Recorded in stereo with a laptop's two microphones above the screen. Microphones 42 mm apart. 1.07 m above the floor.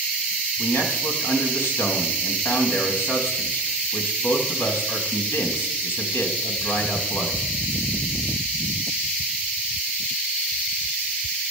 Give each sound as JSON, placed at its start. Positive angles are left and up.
{"t": 0.6, "sound": "a man speaking", "side_deg": 70, "distance_m": 2.5}